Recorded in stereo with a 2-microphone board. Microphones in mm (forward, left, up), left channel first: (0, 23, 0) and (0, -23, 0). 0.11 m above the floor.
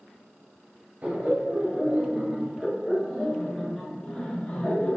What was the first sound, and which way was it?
Laughter, 40° right (ahead or behind).